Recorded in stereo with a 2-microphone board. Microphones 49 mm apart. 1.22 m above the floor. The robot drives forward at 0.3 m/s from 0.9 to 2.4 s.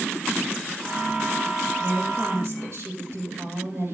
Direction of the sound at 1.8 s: 55° right (ahead or behind).